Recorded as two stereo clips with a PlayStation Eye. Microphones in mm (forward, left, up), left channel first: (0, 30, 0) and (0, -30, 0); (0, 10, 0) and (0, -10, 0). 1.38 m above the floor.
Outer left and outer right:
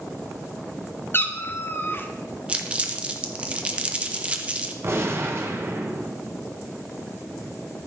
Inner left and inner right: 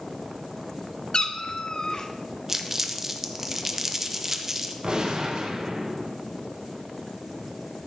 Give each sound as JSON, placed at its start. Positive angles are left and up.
{"t": 1.1, "sound": "a cat meowing", "side_deg": 35, "distance_m": 0.9}
{"t": 2.5, "sound": "crumpling", "side_deg": -20, "distance_m": 1.1}
{"t": 4.8, "sound": "a gunshot", "side_deg": -45, "distance_m": 1.6}